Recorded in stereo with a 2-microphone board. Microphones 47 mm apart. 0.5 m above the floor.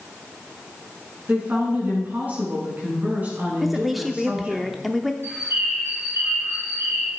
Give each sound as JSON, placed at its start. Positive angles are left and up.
{"t": 1.3, "sound": "a woman speaking", "side_deg": -35, "distance_m": 6.5}
{"t": 3.6, "sound": "a woman speaking", "side_deg": 0, "distance_m": 0.7}
{"t": 5.2, "sound": "a bird", "side_deg": -65, "distance_m": 4.0}